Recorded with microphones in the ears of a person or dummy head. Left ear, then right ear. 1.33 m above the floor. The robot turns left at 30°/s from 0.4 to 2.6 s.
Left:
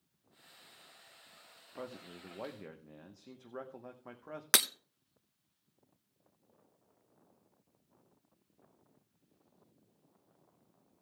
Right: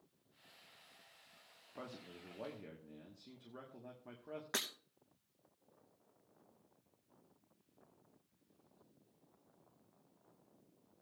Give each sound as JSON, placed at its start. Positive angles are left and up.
{"t": 1.8, "sound": "a man speaking", "side_deg": 15, "distance_m": 1.0}
{"t": 4.5, "sound": "breaking glass", "side_deg": 50, "distance_m": 0.6}